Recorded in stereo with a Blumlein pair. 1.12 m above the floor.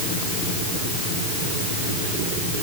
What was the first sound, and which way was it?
Only background noise.